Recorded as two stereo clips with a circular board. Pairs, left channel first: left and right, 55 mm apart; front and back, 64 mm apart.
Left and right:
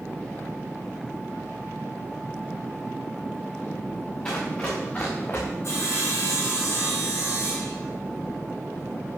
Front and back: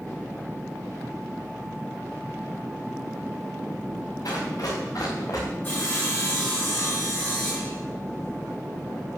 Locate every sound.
4.2 s running footsteps: 20° left, 6.5 m; by 5.5 s 35° left, 5.5 m
5.6 s sawing: 55° left, 6.5 m